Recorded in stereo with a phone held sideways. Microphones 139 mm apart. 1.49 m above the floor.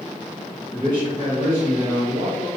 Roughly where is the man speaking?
Right.